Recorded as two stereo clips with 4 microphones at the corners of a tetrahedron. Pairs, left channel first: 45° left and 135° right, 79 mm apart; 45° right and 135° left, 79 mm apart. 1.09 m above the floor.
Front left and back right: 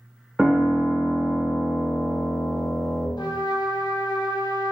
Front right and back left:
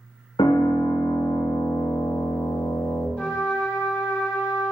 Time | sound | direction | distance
0.4 | a piano | 50° right | 0.6 m
3.2 | a trumpet | 30° left | 0.9 m